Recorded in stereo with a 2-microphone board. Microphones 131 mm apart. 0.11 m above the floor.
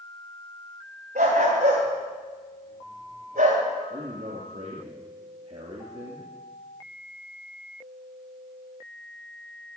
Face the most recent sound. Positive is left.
turn(degrees=-55)  # may be behind; listen again after turning